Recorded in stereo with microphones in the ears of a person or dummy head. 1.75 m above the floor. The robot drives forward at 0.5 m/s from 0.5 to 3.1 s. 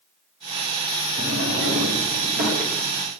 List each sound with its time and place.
1.2 s a drawer: 50° right (ahead or behind), 1.6 m; by 3.2 s 40° right (ahead or behind), 1.9 m